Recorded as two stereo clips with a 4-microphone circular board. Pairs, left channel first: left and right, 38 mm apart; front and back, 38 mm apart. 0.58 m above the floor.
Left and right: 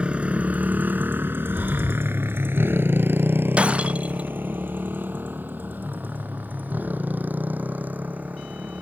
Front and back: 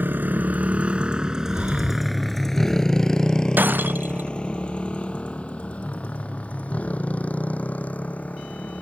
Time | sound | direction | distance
0.0 | a motorcycle | 150° right | ?
1.5 | breathing | 130° right | ?
3.6 | breaking glass | 150° right | ?